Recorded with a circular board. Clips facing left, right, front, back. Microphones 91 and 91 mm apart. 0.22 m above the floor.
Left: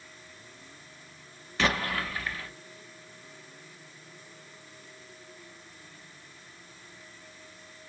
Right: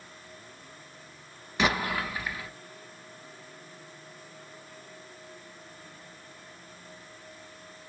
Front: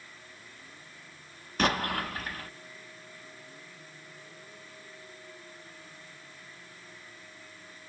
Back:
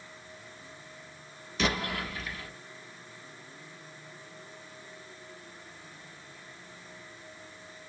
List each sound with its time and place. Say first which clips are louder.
1.6 s an explosion: right 1 dB, front 3 dB; 20° right, 0.9 m